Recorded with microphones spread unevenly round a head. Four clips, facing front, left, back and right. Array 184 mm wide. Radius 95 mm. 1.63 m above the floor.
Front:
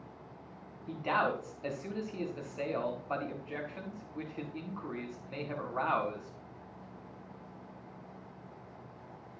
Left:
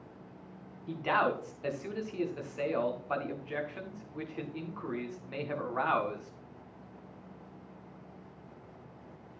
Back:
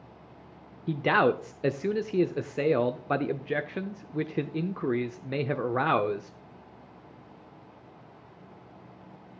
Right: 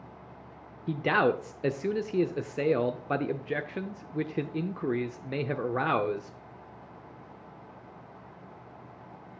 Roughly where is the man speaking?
Behind right.